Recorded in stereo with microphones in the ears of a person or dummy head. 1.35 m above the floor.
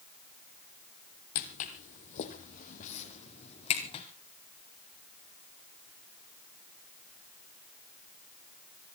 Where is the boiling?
I don't hear boiling.